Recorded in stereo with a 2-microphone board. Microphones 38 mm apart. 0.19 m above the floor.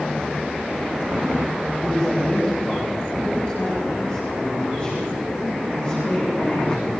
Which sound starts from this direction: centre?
A man speaking, at 1.8 s.